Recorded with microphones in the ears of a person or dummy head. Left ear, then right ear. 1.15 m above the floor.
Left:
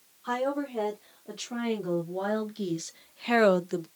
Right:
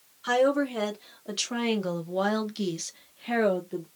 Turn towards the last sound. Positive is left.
turn(degrees=60)  # may be behind; listen again after turning